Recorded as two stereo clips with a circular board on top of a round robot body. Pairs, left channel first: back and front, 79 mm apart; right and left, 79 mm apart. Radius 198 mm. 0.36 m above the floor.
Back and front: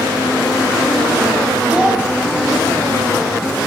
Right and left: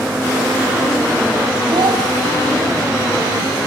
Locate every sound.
1.7 s a child speaking: 75° left, 3.5 m